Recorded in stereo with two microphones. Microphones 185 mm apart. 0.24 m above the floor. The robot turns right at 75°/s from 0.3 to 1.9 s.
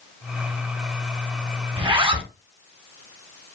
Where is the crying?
No crying in this recording.